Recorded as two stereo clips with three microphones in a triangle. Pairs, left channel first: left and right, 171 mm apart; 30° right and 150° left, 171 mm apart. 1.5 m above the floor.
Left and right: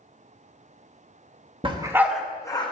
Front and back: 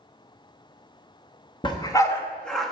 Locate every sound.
1.6 s a dog barking: 65° right, 1.0 m; by 2.7 s 65° left, 1.0 m